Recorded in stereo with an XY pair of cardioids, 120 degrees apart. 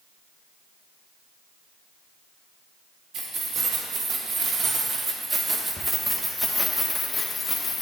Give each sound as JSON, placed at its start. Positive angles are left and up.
{"t": 3.1, "sound": "keys jangling", "azimuth_deg": -65, "distance_m": 1.9}